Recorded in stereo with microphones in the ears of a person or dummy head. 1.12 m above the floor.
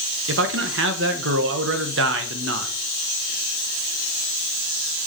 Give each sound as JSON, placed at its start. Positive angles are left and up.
{"t": 0.3, "sound": "a man speaking", "side_deg": -55, "distance_m": 1.3}